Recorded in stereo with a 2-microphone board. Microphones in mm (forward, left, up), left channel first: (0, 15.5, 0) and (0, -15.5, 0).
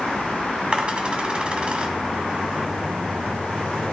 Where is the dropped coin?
35° right (ahead or behind), 1.9 m.